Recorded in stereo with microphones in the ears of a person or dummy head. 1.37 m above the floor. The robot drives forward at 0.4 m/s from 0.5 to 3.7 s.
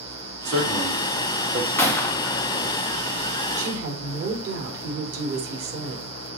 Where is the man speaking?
85° right, 3 m; by 1.7 s 75° right (ahead or behind), 3 m.